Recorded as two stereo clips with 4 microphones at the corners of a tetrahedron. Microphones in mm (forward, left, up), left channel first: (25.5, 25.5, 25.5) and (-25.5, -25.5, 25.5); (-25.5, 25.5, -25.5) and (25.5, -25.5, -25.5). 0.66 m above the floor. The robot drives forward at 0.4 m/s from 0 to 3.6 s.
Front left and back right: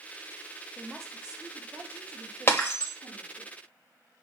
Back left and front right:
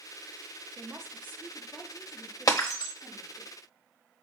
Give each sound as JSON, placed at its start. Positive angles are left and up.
{"t": 0.8, "sound": "a woman speaking", "azimuth_deg": -40, "distance_m": 0.7}
{"t": 2.5, "sound": "breaking glass", "azimuth_deg": 100, "distance_m": 0.9}